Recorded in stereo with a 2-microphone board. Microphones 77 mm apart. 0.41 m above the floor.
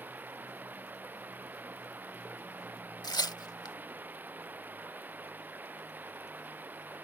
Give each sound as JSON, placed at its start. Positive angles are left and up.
{"t": 0.0, "sound": "running water", "side_deg": -25}
{"t": 3.0, "sound": "tearing paper", "side_deg": 70}